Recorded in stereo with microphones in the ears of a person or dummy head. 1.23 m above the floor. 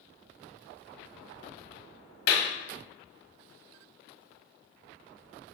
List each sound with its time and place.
2.3 s a clap: 80° left, 1.7 m